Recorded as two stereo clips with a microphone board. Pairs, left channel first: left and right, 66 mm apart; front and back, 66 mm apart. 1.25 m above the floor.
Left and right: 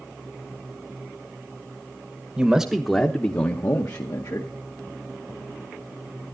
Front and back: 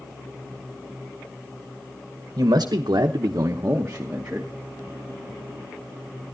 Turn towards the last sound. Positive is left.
turn(degrees=105)